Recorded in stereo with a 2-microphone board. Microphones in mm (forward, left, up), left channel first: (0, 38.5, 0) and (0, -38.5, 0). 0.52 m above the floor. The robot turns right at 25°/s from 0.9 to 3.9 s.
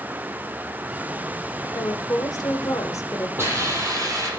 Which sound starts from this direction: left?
A woman speaking, at 1.7 s.